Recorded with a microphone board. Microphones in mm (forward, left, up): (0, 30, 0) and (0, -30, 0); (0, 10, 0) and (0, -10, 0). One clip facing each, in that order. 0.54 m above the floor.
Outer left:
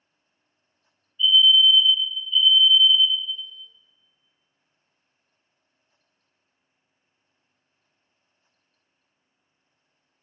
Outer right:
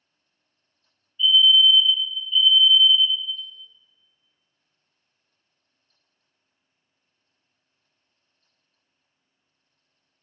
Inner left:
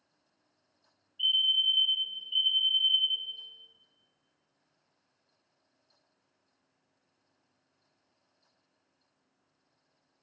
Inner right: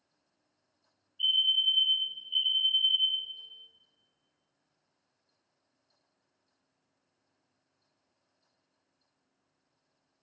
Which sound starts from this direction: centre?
A fire alarm, at 1.2 s.